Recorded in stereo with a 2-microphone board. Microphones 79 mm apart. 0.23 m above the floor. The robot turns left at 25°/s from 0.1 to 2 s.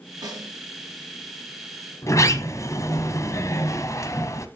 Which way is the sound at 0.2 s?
55° right (ahead or behind).